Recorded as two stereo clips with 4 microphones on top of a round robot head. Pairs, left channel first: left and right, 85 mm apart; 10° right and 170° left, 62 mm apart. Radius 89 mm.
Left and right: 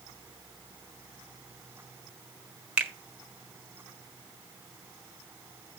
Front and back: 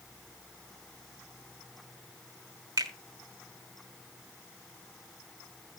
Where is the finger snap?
165° right, 1.4 m.